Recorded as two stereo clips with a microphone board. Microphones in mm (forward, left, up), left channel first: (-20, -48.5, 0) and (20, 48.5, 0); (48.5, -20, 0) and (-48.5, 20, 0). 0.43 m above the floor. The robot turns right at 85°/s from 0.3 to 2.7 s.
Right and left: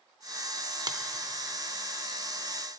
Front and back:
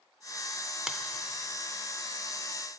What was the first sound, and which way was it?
A finger snap, 75° left.